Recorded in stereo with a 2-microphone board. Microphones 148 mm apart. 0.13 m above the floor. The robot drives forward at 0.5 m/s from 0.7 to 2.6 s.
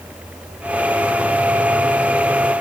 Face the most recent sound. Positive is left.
No sound to turn to.